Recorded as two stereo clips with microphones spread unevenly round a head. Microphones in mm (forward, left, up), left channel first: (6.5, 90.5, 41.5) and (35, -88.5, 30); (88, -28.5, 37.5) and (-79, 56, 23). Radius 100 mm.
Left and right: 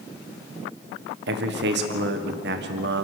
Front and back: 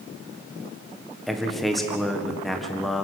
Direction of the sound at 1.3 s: 115° right.